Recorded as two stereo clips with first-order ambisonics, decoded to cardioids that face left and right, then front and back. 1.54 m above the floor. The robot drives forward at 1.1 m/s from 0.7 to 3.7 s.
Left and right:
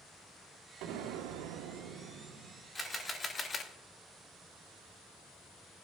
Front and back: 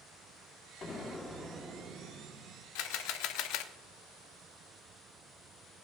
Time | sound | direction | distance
0.8 | an explosion | 65° right | 1.3 m
2.8 | a camera shutter | 15° left | 2.0 m